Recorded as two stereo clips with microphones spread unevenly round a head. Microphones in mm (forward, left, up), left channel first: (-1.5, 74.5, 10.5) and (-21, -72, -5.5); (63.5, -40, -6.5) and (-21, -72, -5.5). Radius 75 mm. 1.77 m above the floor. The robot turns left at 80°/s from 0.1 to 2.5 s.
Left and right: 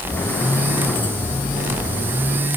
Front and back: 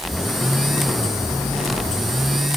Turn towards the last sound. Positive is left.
No sound to turn to.